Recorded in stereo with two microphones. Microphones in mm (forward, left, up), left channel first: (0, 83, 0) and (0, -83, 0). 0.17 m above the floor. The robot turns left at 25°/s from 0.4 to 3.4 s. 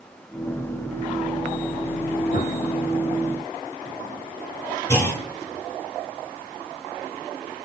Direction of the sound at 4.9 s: 15° left (ahead or behind).